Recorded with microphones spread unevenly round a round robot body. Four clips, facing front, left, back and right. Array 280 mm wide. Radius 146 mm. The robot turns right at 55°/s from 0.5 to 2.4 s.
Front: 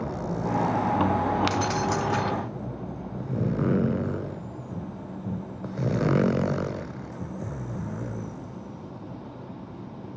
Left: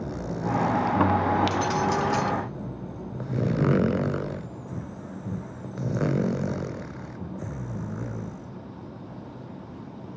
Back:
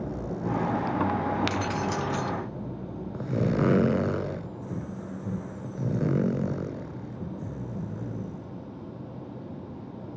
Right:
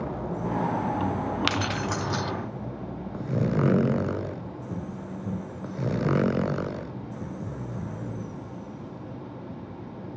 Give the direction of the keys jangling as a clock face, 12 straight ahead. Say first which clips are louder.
Left 4 dB, front 3 dB; 3 o'clock.